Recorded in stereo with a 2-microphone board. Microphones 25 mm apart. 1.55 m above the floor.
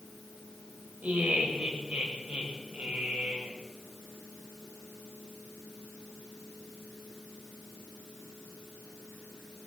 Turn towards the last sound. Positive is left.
turn(degrees=-75)  # may be behind; listen again after turning